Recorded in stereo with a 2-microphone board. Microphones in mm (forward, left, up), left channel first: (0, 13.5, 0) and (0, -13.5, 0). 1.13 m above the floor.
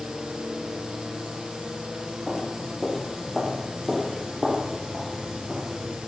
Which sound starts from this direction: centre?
Footsteps, at 2.3 s.